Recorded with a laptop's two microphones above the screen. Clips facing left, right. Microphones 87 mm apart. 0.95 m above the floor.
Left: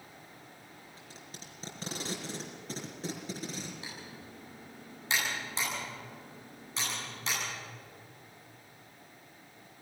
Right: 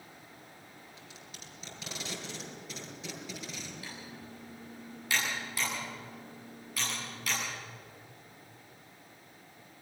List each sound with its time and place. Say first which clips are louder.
1.0 s tape being pulled: left 1 dB; 40° left (ahead or behind), 5 m
3.8 s typing on a keyboard: even; 25° left (ahead or behind), 9.5 m